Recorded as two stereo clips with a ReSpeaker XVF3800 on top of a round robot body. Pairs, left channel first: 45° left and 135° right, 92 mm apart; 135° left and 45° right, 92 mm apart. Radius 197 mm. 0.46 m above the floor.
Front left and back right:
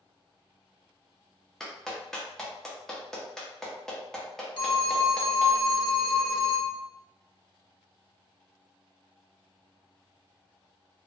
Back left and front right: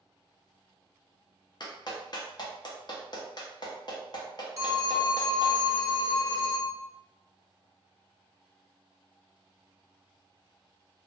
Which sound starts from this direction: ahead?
A phone ringing, at 4.6 s.